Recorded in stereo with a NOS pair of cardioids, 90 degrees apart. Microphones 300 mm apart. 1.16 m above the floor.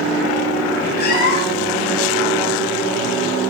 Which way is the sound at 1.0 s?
30° left.